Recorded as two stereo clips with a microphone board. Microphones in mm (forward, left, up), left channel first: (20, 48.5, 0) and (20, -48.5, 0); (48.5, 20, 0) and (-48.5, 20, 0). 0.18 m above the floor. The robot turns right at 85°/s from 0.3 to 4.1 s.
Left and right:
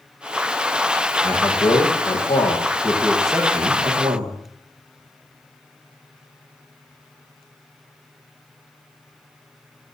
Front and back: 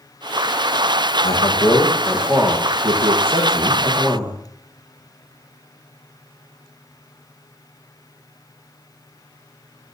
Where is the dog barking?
I don't hear a dog barking.